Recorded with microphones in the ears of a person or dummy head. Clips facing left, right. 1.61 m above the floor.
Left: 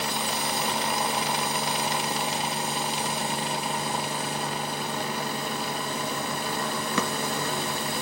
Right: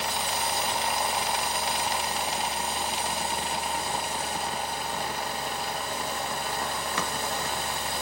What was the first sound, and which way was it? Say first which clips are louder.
A machine running: left 1 dB; 65° left (ahead or behind).